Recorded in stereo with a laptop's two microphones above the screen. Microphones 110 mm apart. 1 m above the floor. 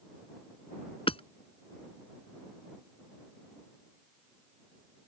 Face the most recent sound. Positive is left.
turn(degrees=60)  # may be behind; listen again after turning